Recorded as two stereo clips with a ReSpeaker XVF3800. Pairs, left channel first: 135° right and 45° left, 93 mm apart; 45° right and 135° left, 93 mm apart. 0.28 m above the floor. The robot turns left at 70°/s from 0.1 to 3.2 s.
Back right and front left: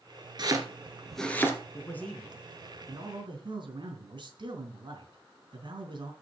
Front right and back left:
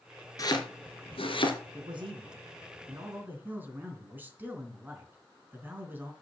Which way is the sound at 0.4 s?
5° left.